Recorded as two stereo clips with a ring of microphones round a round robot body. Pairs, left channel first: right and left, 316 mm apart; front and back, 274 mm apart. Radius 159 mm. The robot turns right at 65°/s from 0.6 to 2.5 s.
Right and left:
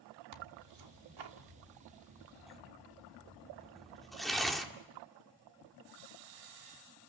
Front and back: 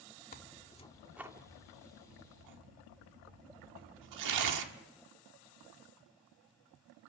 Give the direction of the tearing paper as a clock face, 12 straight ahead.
10 o'clock.